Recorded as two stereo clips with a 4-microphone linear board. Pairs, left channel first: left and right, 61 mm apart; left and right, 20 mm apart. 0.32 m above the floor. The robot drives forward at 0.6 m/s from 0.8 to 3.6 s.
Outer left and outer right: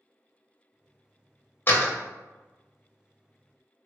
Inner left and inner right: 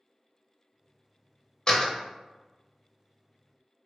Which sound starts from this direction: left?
A door slam, at 1.7 s.